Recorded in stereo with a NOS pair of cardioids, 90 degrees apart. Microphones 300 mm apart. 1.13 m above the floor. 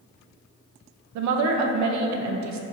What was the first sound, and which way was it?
A woman speaking, 70° right.